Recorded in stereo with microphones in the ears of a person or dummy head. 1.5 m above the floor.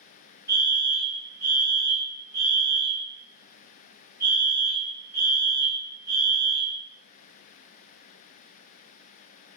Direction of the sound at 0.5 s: 15° right (ahead or behind).